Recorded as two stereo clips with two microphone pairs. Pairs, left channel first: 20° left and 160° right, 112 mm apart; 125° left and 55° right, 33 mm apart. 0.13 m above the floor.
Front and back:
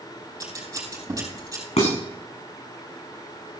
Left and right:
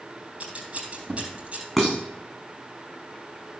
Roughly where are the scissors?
Right.